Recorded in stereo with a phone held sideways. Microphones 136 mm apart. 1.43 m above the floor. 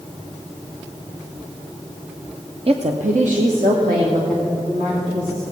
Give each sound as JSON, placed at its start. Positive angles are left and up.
{"t": 2.7, "sound": "a woman speaking", "side_deg": -45, "distance_m": 0.6}